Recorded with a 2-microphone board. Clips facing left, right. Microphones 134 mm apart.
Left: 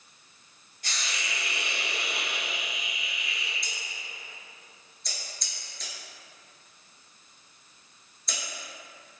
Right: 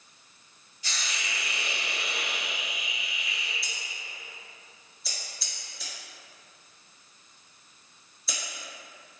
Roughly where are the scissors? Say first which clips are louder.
Even; centre.